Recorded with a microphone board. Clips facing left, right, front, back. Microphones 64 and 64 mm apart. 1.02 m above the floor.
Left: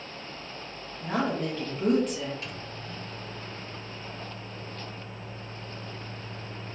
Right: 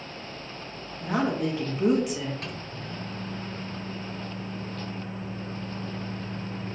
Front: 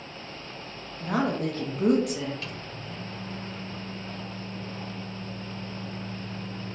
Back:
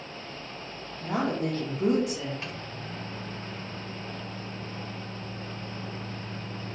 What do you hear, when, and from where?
1.0 s a woman speaking: 10° right, 1.2 m
2.4 s a microwave: 115° right, 0.6 m